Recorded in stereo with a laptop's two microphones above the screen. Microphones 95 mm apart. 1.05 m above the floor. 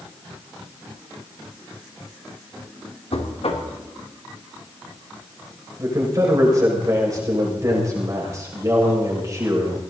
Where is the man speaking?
35° right (ahead or behind), 6 m.